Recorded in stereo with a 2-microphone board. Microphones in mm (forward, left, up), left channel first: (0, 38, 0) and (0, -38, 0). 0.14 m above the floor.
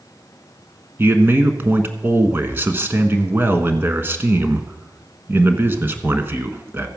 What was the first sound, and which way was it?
A man speaking, 30° right (ahead or behind).